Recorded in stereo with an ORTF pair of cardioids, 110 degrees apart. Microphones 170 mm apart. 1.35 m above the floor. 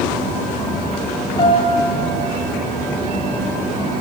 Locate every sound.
1.4 s a piano: 30° left, 9 m